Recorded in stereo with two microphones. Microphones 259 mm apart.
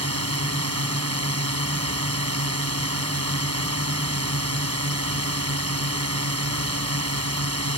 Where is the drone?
70° right (ahead or behind).